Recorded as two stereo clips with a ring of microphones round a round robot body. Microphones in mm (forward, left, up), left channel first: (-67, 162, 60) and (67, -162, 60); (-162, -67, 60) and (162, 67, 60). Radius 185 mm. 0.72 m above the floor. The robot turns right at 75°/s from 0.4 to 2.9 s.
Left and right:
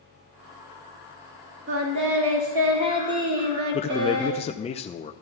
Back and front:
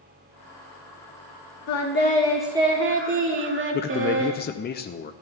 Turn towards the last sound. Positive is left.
turn(degrees=170)